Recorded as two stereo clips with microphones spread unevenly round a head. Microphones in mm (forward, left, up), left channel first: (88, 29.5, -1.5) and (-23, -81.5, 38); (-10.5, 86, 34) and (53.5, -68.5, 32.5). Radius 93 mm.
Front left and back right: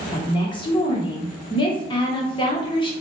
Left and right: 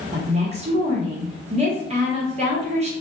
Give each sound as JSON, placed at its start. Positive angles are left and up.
{"t": 0.1, "sound": "a woman speaking", "azimuth_deg": -15, "distance_m": 1.0}